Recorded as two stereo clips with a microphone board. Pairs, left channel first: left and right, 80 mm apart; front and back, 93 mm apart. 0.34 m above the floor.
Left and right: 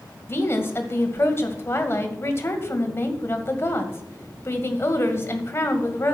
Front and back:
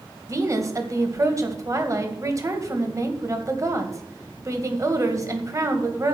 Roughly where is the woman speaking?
Behind left.